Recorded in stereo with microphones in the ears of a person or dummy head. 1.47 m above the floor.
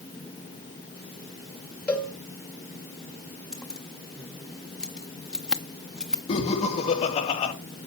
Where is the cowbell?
Centre (ahead or behind), 2 m.